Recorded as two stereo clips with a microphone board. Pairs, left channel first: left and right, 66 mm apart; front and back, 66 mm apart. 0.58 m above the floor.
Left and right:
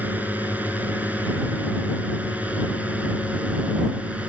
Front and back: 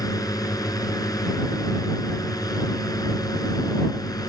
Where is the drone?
25° right; by 4.3 s 20° right.